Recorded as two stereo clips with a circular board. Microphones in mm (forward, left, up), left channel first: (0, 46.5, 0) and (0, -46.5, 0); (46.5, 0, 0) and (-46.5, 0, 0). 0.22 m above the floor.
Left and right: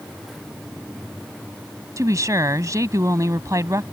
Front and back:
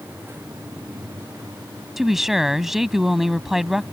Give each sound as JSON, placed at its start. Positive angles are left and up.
{"t": 2.0, "sound": "a woman speaking", "azimuth_deg": -95}